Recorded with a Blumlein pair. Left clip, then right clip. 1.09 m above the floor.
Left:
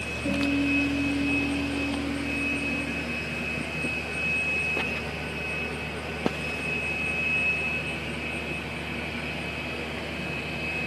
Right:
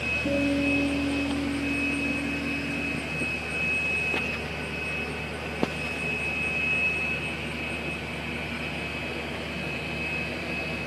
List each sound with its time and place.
0.2 s a guitar: 10° right, 4 m